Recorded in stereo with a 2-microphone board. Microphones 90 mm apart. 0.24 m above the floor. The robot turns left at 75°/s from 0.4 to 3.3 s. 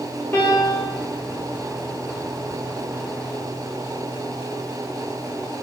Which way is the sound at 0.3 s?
160° left.